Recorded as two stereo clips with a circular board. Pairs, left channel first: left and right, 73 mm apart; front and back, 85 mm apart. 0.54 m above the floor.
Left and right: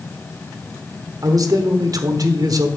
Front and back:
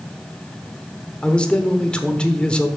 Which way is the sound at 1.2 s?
75° right.